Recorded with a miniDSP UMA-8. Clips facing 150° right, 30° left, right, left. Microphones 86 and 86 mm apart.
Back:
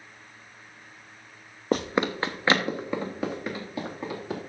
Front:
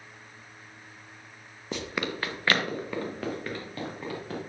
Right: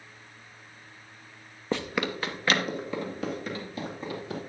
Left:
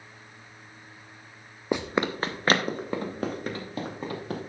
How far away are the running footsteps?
About 0.6 m.